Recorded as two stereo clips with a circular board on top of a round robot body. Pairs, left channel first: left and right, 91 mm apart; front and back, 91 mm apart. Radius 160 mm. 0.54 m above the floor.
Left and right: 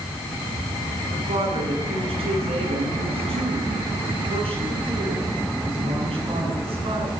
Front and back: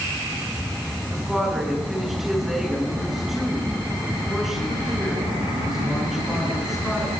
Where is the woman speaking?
90° right, 9 m.